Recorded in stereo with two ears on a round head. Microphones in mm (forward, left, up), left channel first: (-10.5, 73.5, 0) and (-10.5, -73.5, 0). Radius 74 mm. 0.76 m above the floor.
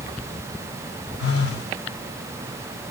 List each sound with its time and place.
1.2 s a phone buzzing: 75° left (ahead or behind), 1.7 m